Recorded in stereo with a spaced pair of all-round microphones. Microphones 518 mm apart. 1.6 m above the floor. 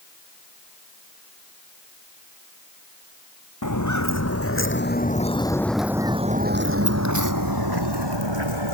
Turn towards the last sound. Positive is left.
turn(degrees=-60)  # may be behind; listen again after turning